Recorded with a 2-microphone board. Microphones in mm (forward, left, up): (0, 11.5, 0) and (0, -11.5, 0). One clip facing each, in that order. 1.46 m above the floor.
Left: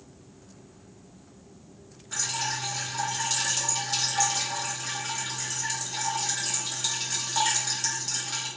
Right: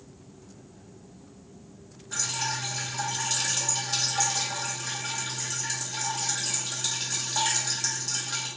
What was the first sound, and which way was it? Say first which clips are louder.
Dripping: even; 5° left (ahead or behind).